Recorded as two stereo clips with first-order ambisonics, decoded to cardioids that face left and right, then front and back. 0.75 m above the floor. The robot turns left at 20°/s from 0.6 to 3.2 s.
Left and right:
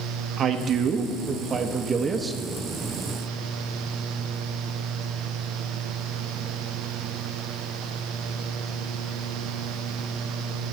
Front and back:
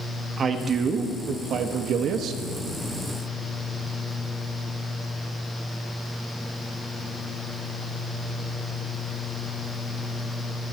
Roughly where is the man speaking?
Behind right.